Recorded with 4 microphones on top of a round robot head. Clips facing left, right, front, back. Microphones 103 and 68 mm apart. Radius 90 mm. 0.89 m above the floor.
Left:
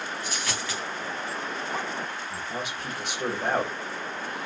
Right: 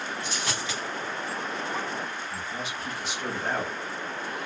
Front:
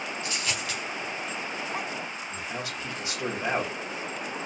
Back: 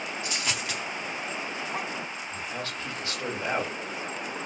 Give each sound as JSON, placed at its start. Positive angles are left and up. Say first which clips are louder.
{"t": 0.2, "sound": "a dropped coin", "louder": "even, back 1 dB", "azimuth_deg": -140, "distance_m": 0.7}
{"t": 2.3, "sound": "a man speaking", "louder": "left 1 dB, even", "azimuth_deg": 75, "distance_m": 1.7}